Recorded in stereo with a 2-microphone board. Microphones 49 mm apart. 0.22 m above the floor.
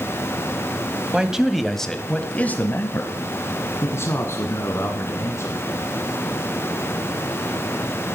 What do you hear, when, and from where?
1.1 s a man speaking: 20° right (ahead or behind), 1.2 m; by 5.6 s 65° left (ahead or behind), 3 m